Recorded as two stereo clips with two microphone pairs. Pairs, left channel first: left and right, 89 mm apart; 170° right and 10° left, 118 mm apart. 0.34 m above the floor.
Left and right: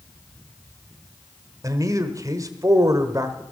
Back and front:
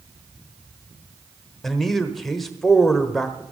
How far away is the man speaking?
About 1.1 m.